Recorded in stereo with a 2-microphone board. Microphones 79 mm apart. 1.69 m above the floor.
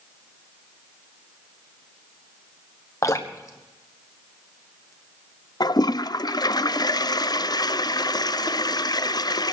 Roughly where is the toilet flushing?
Left.